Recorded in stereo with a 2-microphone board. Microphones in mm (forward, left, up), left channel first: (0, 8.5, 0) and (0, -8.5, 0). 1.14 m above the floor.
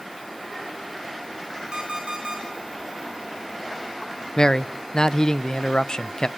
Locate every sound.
1.7 s an alarm clock: 65° right (ahead or behind), 4 m
4.4 s a man speaking: 40° left (ahead or behind), 0.5 m